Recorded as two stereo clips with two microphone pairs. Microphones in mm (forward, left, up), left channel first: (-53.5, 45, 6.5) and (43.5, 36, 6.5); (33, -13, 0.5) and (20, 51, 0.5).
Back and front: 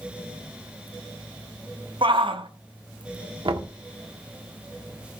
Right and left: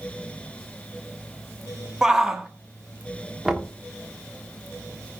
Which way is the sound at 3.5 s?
20° left.